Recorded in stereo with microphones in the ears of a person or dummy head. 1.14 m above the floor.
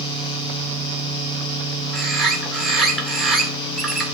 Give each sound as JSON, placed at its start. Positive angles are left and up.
{"t": 1.9, "sound": "a bird", "side_deg": -5, "distance_m": 1.9}